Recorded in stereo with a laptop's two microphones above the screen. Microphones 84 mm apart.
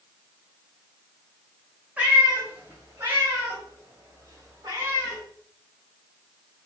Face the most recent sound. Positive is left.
turn(degrees=-35)  # may be behind; listen again after turning